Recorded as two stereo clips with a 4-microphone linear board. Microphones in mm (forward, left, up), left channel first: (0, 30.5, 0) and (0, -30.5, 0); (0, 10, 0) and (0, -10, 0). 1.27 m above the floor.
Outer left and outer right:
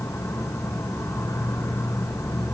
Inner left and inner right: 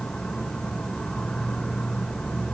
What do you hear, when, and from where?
0.0 s an insect: 55° left (ahead or behind), 1.7 m